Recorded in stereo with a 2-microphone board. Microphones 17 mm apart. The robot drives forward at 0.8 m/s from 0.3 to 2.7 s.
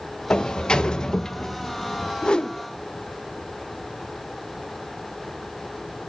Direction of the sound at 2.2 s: 55° left (ahead or behind).